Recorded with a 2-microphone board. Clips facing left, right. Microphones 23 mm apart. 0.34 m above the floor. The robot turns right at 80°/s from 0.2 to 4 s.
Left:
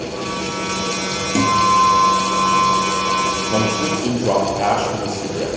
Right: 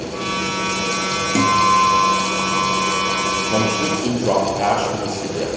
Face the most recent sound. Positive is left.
turn(degrees=5)